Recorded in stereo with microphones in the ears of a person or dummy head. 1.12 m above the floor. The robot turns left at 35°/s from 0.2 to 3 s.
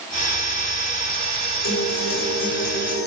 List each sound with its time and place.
1.6 s a guitar: 115° left, 4 m; by 3.1 s 70° left, 4 m